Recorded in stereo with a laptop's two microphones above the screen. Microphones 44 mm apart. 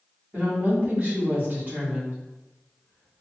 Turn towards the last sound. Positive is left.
turn(degrees=-40)  # may be behind; listen again after turning